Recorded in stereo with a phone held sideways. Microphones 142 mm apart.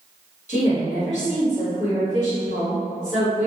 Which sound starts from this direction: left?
A woman speaking, at 0.5 s.